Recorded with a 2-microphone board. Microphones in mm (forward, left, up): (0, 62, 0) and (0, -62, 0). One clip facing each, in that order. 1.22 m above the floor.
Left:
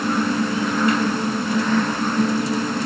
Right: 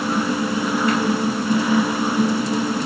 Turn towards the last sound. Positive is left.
No sound to turn to.